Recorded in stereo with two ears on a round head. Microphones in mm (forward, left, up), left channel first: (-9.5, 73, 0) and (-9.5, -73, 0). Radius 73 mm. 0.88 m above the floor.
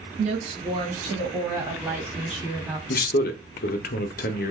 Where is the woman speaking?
35° right (ahead or behind), 1.2 m; by 2.8 s centre (ahead or behind), 2.5 m.